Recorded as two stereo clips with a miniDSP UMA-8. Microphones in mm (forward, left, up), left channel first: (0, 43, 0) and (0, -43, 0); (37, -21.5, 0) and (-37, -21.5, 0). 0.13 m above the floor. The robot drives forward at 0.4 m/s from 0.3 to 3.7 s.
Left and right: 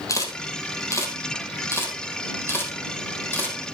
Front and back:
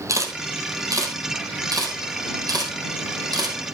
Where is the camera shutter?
140° left, 2 m; by 3.6 s 155° left, 3 m.